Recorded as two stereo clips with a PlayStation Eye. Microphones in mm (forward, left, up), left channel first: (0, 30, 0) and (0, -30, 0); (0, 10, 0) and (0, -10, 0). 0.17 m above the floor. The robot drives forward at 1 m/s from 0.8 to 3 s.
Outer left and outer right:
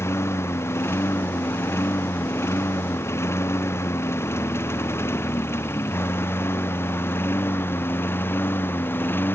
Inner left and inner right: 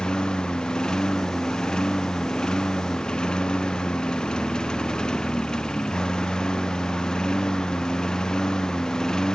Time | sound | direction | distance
0.0 | a lawn mower | 45° left (ahead or behind) | ?